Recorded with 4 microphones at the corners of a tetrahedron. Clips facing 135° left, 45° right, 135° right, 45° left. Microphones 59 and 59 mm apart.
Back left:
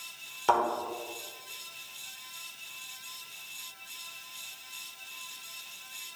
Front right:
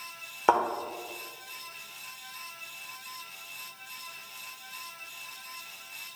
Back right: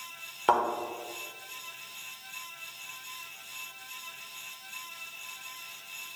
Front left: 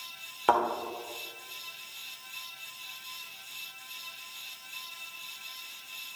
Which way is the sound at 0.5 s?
35° right.